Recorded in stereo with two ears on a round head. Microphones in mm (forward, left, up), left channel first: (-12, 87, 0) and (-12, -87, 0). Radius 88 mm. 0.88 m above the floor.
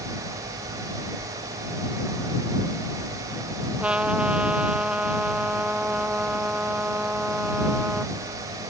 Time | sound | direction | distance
3.8 | a trumpet | 5° right (ahead or behind) | ?